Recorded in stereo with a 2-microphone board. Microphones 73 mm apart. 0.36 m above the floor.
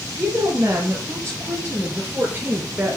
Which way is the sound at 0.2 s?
45° right (ahead or behind).